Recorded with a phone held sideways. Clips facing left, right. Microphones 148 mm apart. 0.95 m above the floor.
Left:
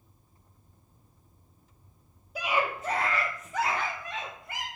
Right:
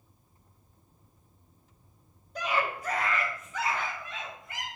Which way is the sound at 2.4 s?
10° left (ahead or behind).